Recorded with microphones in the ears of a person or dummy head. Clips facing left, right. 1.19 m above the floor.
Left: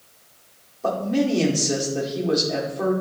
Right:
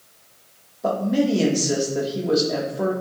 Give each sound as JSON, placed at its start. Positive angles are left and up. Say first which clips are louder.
{"t": 0.8, "sound": "a man speaking", "louder": "right 1 dB", "side_deg": -10, "distance_m": 2.0}